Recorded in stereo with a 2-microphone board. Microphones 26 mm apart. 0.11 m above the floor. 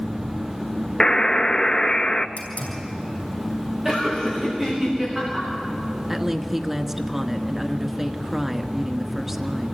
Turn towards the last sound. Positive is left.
turn(degrees=-10)  # may be behind; listen again after turning